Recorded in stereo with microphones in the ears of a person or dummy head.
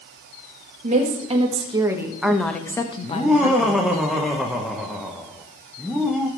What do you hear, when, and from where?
0.8 s a woman speaking: 45° right (ahead or behind), 1.6 m; by 3.8 s 55° left (ahead or behind), 1.3 m
3.0 s laughter: 5° right (ahead or behind), 0.9 m